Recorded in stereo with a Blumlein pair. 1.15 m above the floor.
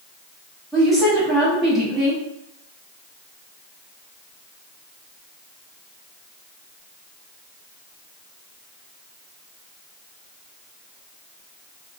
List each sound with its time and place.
0.7 s a woman speaking: 5° left, 1.3 m